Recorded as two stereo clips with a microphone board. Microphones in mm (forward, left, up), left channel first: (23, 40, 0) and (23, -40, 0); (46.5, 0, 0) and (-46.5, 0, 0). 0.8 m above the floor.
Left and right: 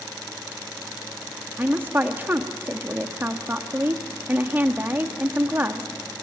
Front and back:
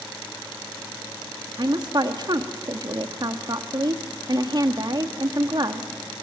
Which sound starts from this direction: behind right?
A woman speaking, at 1.6 s.